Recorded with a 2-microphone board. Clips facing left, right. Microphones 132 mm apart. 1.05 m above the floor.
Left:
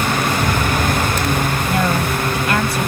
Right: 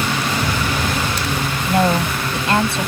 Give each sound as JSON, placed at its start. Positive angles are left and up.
{"t": 1.7, "sound": "a woman speaking", "side_deg": -25}